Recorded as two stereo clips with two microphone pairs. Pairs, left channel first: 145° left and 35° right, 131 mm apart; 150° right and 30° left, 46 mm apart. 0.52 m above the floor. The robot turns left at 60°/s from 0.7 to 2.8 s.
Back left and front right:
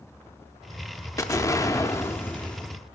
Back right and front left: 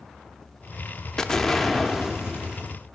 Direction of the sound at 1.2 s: 165° left.